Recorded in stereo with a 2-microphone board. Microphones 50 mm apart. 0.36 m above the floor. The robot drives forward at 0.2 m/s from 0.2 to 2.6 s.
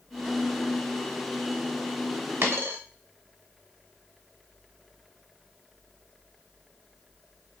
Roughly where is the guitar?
No guitar in this recording.